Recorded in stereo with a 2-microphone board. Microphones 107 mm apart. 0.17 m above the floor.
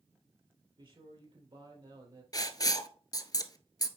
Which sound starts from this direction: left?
Writing, at 2.3 s.